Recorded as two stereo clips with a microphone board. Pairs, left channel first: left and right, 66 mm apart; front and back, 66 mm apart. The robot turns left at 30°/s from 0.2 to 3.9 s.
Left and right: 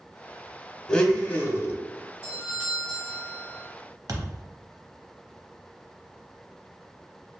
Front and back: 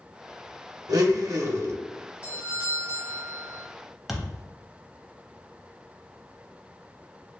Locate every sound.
0.9 s a blender: 165° left, 0.5 m; by 1.8 s 140° left, 0.5 m
2.2 s a doorbell: 140° right, 1.6 m; by 3.6 s 175° left, 1.6 m
4.1 s a thud: 95° right, 0.5 m